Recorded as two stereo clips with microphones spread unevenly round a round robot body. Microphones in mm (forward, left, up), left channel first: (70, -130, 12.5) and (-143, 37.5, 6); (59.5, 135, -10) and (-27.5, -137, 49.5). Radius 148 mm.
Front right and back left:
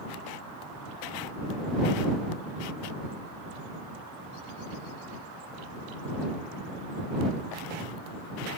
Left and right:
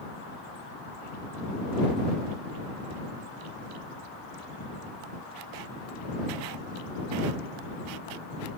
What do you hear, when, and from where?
Only background noise.